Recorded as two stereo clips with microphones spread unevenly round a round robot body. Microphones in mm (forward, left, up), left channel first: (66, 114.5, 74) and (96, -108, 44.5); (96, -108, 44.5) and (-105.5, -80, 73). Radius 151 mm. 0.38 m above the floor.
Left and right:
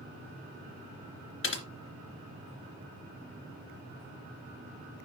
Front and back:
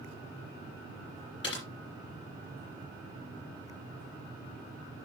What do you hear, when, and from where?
1.4 s typing on a keyboard: 65° left, 2.5 m